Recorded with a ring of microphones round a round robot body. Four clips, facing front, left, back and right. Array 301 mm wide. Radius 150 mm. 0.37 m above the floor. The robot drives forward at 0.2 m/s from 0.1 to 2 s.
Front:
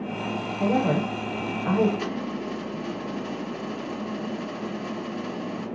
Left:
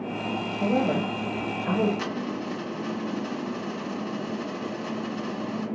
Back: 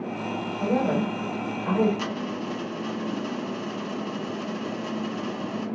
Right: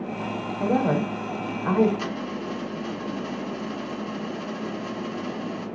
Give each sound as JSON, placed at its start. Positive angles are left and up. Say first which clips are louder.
{"t": 0.6, "sound": "a woman speaking", "louder": "right 2 dB, front 1 dB", "azimuth_deg": -60, "distance_m": 1.0}
{"t": 2.0, "sound": "a dropped coin", "louder": "even, even", "azimuth_deg": 150, "distance_m": 2.0}